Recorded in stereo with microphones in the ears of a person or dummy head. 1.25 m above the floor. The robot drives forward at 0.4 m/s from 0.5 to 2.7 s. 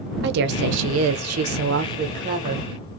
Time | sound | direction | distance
0.2 | a woman speaking | 60° right (ahead or behind) | 0.5 m